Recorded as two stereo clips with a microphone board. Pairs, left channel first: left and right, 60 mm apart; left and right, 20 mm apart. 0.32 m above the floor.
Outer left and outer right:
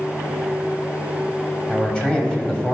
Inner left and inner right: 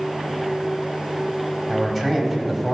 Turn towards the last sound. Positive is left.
turn(degrees=15)  # may be behind; listen again after turning